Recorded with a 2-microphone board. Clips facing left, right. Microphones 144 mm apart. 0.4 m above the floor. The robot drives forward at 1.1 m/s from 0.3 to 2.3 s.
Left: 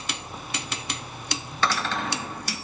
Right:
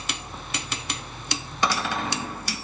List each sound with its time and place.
1.6 s a cupboard door: 15° right (ahead or behind), 0.8 m; by 2.4 s 10° right (ahead or behind), 1.5 m